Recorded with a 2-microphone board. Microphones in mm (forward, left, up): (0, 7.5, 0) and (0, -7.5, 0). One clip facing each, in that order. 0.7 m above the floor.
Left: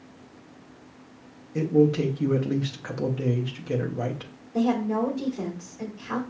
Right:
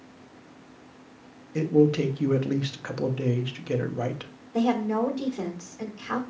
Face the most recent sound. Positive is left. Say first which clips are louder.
# even
turn(degrees=-65)  # may be behind; listen again after turning